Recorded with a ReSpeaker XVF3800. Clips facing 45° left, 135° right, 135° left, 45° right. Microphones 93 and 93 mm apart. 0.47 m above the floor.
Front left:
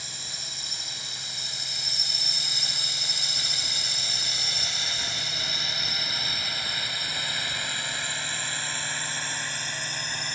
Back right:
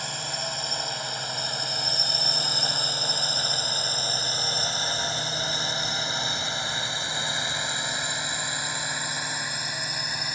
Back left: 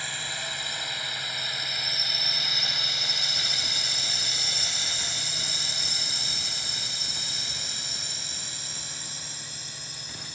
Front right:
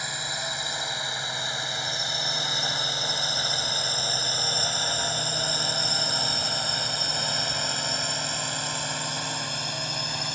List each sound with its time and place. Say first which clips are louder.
0.0 s a drone: back right 11 dB, front right 3 dB; 115° right; by 10.3 s 55° right